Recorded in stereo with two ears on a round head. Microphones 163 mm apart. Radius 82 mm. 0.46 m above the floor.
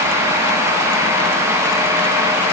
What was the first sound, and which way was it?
Only background noise.